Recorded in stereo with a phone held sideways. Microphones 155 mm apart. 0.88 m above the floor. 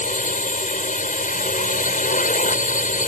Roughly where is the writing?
I don't hear writing.